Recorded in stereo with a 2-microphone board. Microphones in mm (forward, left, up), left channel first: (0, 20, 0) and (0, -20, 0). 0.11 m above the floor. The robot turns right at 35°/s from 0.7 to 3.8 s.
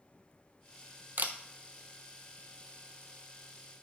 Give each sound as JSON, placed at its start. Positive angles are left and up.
{"t": 1.2, "sound": "a camera shutter", "side_deg": -50, "distance_m": 0.8}